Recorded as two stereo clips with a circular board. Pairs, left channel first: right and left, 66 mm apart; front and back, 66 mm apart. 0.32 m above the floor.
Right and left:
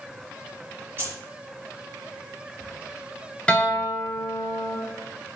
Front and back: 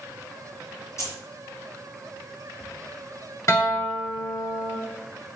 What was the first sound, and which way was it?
Keys jangling, 35° left.